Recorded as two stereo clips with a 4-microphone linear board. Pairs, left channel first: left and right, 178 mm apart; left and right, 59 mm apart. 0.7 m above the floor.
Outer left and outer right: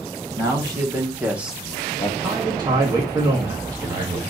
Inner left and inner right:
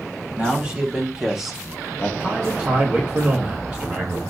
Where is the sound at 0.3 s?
20° right (ahead or behind), 2.0 m; by 2.1 s 25° left (ahead or behind), 0.6 m.